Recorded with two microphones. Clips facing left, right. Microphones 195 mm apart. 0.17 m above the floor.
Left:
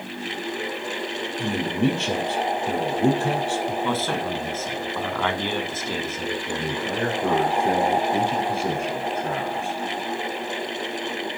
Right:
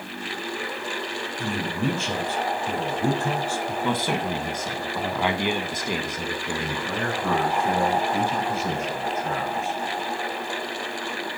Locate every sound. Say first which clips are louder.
1.4 s a man speaking: left 5 dB; 70° left (ahead or behind), 4.5 m
3.8 s a man speaking: even; 15° right (ahead or behind), 1.6 m
6.6 s a man speaking: left 3 dB; 60° left (ahead or behind), 5 m